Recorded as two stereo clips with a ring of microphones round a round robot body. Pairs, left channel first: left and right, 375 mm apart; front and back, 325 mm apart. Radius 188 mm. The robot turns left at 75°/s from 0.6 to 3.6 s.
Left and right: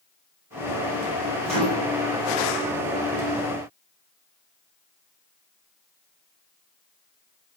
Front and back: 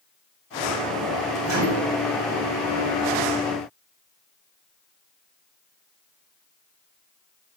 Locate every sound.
1.4 s a microwave: straight behind, 1.3 m; by 1.9 s 150° left, 1.3 m